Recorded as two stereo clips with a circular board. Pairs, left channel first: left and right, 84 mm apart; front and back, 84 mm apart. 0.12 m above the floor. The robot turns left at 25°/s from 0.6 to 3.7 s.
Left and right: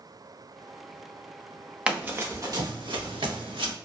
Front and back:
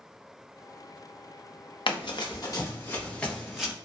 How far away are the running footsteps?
About 1.0 m.